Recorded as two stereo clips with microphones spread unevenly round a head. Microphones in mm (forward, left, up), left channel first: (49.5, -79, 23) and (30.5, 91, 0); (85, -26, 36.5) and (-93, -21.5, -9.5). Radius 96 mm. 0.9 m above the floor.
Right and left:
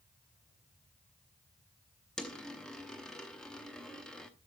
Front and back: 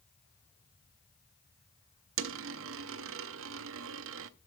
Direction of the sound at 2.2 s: 170° right.